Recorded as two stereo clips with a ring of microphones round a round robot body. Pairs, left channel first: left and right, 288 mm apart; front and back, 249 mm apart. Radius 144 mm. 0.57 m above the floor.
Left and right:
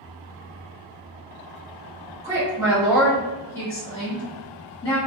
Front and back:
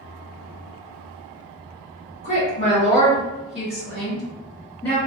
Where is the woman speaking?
40° right, 1.4 m; by 5.0 s 70° left, 1.5 m.